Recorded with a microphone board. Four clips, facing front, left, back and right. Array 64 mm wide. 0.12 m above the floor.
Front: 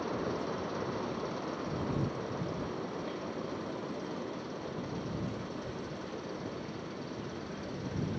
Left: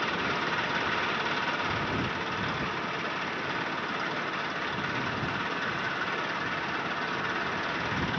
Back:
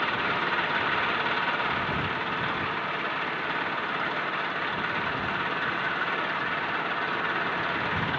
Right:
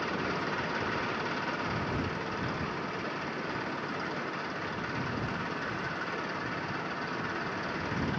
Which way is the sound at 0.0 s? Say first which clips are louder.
Left 3 dB, back 8 dB; 165° left.